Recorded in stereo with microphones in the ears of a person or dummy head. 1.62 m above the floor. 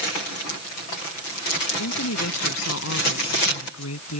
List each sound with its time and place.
1.8 s a woman speaking: 90° left